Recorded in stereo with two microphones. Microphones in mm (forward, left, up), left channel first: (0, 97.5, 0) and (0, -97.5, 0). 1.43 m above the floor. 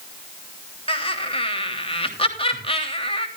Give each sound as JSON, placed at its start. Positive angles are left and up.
{"t": 0.9, "sound": "laughter", "side_deg": 30, "distance_m": 3.0}